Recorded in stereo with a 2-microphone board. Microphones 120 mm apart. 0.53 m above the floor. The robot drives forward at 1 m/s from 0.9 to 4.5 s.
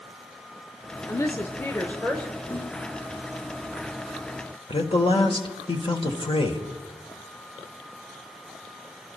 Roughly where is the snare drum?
Left.